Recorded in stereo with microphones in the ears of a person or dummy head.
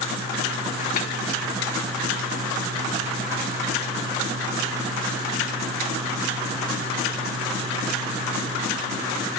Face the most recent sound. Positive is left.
turn(degrees=35)  # may be behind; listen again after turning